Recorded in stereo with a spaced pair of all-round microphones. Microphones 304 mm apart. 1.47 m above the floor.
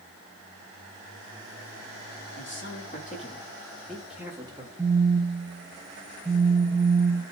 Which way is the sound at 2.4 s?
40° left (ahead or behind).